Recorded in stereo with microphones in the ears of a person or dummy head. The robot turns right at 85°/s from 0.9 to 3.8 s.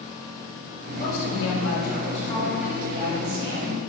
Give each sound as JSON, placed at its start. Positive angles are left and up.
{"t": 1.0, "sound": "a woman speaking", "azimuth_deg": 45, "distance_m": 2.0}